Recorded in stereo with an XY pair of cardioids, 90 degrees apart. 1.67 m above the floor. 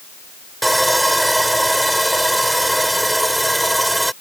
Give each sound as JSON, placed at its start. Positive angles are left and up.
{"t": 0.6, "sound": "sawing", "azimuth_deg": -10}